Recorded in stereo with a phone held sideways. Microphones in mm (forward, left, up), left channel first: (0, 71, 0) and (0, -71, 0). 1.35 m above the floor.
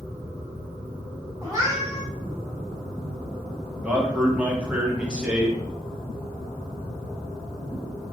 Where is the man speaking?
10° right (ahead or behind), 0.9 m.